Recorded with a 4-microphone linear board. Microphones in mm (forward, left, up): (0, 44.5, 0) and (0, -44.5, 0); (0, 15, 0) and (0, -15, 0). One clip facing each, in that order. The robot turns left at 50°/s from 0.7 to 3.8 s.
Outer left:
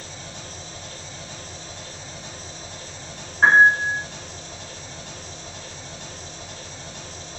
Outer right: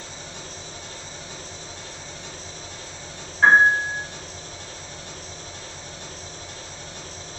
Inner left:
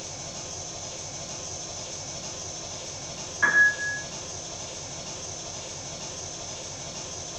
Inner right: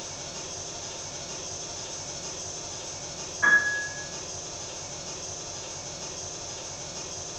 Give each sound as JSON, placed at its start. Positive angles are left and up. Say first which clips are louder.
{"t": 0.0, "sound": "an engine running", "louder": "even, even", "azimuth_deg": -120, "distance_m": 1.4}
{"t": 3.4, "sound": "a piano", "louder": "outer left 1 dB, inner left 2 dB", "side_deg": 35, "distance_m": 0.8}